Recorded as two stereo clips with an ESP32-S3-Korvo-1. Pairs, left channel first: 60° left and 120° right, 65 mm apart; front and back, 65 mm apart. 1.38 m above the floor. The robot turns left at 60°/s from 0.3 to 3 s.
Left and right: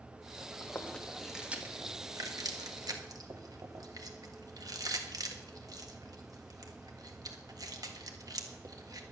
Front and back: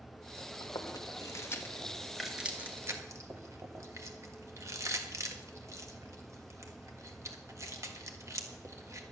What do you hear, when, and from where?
0.6 s chewing: 5° left, 1.5 m; by 9.0 s 140° right, 1.5 m